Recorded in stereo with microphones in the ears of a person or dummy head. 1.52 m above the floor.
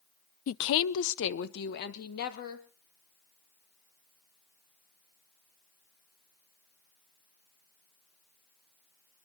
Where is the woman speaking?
40° left (ahead or behind), 0.5 m; by 2.7 s 55° left (ahead or behind), 3 m.